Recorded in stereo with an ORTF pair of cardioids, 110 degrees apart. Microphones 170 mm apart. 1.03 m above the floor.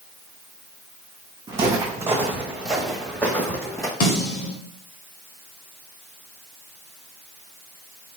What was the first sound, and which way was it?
Footsteps, 25° right.